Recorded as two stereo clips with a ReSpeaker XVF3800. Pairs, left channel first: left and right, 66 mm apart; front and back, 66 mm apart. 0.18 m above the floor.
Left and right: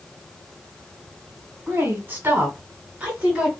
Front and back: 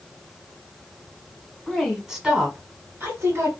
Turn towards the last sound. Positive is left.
turn(degrees=-155)